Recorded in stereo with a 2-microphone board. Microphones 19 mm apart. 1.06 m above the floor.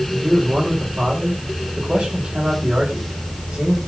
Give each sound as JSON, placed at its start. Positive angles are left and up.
{"t": 0.1, "sound": "a man speaking", "side_deg": -85, "distance_m": 4.5}